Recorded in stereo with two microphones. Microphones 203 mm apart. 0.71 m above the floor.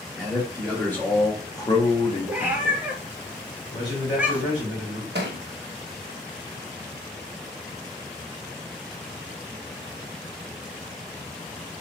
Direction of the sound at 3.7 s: 35° left (ahead or behind).